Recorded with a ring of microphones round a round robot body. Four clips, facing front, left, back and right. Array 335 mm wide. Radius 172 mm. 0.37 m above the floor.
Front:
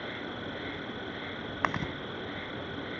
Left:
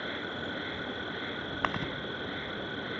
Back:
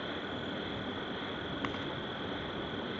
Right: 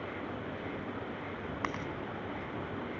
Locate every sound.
0.0 s an insect: 85° left
1.6 s chewing: 30° left